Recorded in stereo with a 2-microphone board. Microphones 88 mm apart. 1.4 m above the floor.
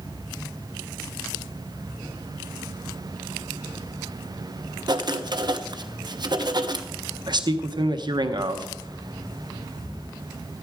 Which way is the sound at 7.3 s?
60° right (ahead or behind).